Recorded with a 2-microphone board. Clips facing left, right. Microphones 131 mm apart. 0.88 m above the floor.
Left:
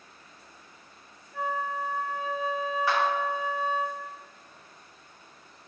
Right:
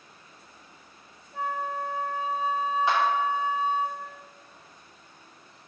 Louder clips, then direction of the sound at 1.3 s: Even; 25° right (ahead or behind).